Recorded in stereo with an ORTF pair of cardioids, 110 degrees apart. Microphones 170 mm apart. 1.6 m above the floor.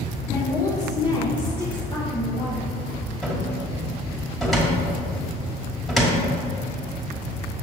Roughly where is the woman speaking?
Ahead.